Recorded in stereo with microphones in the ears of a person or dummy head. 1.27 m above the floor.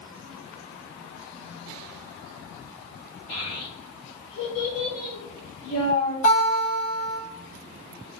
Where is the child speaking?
30° left (ahead or behind), 0.8 m; by 6.1 s 85° left, 2.5 m.